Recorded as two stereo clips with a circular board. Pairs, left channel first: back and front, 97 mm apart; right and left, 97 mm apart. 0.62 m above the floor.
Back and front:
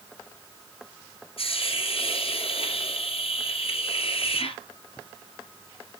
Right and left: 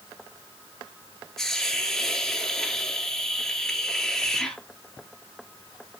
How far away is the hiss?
About 1.7 m.